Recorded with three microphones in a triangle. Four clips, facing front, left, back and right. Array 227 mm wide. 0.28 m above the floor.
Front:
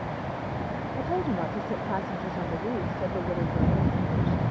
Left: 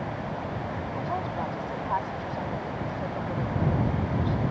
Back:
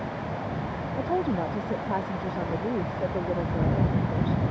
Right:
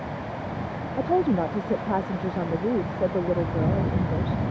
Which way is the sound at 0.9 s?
95° right.